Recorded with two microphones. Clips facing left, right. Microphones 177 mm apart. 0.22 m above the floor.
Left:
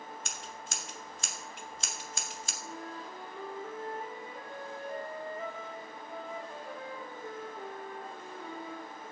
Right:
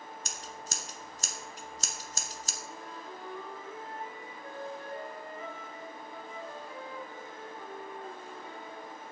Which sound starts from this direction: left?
A flute, at 2.6 s.